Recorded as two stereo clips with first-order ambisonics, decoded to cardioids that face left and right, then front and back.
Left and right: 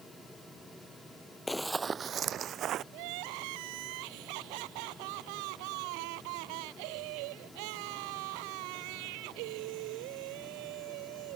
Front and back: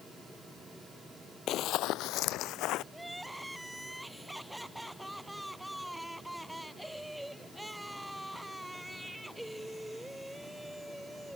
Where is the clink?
I don't hear a clink.